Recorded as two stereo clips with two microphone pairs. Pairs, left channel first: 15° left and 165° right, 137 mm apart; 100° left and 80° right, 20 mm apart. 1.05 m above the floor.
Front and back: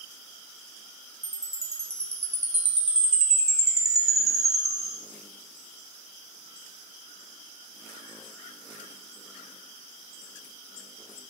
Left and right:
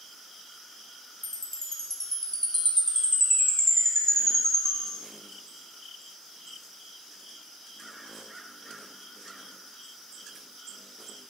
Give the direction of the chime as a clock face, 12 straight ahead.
7 o'clock.